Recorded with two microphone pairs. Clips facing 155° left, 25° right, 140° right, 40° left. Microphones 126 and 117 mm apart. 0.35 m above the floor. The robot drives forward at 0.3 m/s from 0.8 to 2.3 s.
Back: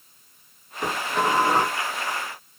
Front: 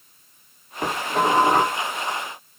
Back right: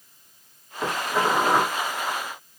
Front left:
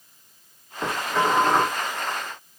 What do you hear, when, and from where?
0.8 s dishes clattering: 55° right, 1.3 m; by 1.8 s 70° right, 1.2 m